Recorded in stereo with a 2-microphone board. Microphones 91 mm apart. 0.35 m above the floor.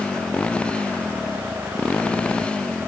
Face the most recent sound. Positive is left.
turn(degrees=10)  # may be behind; listen again after turning